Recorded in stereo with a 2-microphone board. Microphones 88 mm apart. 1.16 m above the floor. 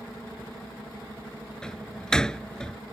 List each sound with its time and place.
1.6 s a door slam: 10° left (ahead or behind)